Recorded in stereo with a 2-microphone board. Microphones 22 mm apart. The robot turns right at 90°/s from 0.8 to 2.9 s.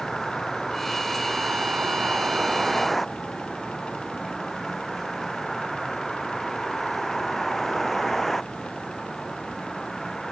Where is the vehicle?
5° left (ahead or behind); by 10.3 s 10° left (ahead or behind).